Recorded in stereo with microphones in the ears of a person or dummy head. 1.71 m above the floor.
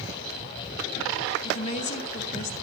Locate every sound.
1.4 s a woman speaking: 35° left (ahead or behind), 1.8 m